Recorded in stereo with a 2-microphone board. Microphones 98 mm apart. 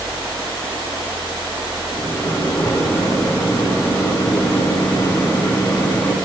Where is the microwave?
25° left (ahead or behind), 1.1 m.